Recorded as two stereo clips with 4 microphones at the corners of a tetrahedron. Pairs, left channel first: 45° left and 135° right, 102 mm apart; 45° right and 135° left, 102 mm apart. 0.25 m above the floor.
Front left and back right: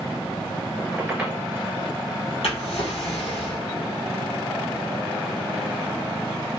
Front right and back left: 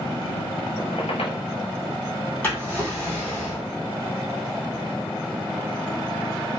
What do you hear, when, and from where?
0.8 s a squeak: 55° right, 1.5 m
2.4 s a drawer: 25° left, 2.5 m